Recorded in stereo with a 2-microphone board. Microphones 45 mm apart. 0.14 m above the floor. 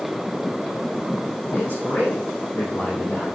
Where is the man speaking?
55° left (ahead or behind), 3 m.